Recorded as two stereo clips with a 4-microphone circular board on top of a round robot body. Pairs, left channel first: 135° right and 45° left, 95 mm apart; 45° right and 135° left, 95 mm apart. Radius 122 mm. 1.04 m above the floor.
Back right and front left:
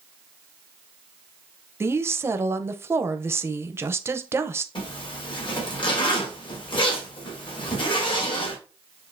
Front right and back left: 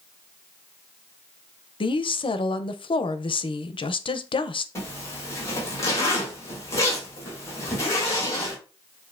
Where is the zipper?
105° right, 2 m.